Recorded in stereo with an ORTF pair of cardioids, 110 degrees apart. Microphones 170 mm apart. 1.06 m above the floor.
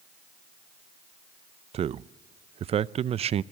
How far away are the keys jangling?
No keys jangling in this recording.